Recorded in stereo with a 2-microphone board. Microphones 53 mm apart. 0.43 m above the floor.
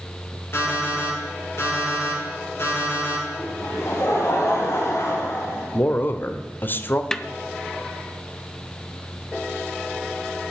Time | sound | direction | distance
0.5 | an alarm clock | 45° left (ahead or behind) | 7.5 m
3.4 | laughter | 55° left (ahead or behind) | 2.5 m
5.7 | a man speaking | 40° left (ahead or behind) | 1.1 m
7.1 | a snare drum | 10° left (ahead or behind) | 0.7 m